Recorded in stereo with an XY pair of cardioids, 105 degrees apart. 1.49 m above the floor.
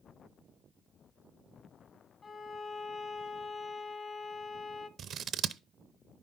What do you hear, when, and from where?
2.2 s a violin: 45° left, 1.0 m
5.0 s scissors: 55° right, 0.5 m